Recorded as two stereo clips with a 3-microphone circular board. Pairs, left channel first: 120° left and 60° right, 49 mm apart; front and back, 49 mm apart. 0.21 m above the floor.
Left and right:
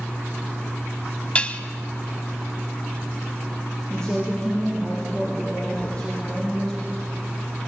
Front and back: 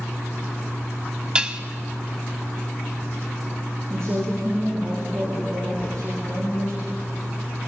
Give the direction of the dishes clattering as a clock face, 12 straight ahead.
8 o'clock.